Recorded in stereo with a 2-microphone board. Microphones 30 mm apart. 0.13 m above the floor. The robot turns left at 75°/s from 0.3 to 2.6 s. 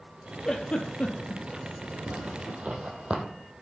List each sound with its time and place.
0.5 s a giggle: 20° left (ahead or behind), 0.6 m; by 1.4 s 75° left (ahead or behind), 0.6 m
2.1 s a zipper: 80° right, 0.9 m; by 3.2 s 50° right (ahead or behind), 0.9 m